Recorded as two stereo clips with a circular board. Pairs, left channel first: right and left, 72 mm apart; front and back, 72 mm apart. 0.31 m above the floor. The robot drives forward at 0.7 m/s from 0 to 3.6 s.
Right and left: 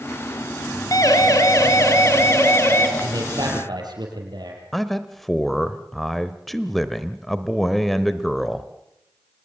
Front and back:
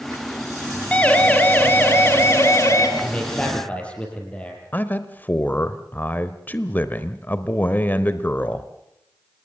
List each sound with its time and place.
0.9 s a siren: 70° right, 3 m; by 2.9 s 40° right, 3.5 m
3.0 s a man speaking: 70° left, 7.5 m; by 4.6 s 75° left, 7 m
4.7 s a man speaking: 5° right, 0.9 m